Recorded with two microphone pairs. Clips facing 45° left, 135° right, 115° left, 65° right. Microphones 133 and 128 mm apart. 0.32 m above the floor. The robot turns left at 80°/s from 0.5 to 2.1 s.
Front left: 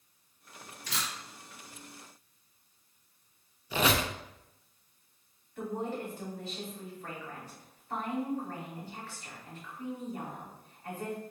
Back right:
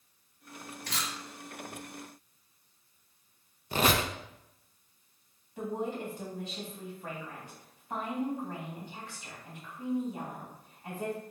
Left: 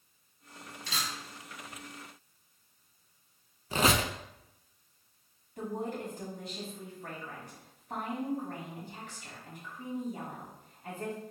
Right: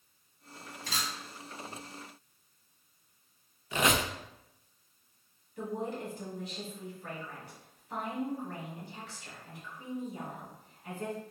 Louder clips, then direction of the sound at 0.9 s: Even, even; 105° right.